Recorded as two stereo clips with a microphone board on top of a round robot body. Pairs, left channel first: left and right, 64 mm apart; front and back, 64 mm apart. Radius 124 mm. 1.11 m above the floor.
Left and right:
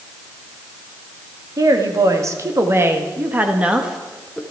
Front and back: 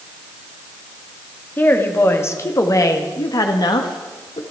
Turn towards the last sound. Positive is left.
turn(degrees=5)